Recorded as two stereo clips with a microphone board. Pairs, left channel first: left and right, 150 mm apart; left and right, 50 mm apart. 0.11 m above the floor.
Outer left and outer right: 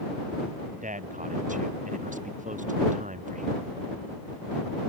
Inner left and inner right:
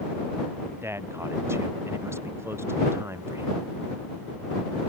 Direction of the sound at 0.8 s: 55° right (ahead or behind).